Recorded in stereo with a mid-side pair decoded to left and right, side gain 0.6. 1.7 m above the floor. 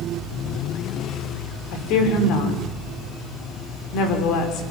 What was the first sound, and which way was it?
A woman speaking, 70° left.